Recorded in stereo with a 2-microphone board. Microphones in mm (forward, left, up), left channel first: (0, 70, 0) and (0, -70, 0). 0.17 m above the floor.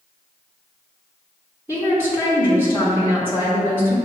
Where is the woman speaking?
15° right (ahead or behind), 1.6 m.